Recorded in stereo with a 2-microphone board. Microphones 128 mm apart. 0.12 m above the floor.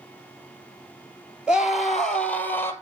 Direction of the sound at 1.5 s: 5° right (ahead or behind).